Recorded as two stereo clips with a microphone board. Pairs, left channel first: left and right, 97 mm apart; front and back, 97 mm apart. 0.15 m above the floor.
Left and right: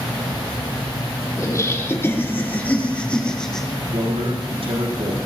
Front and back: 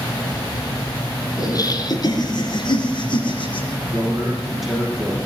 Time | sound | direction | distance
1.4 | laughter | 40° left | 2 m
3.9 | a man speaking | 90° right | 6 m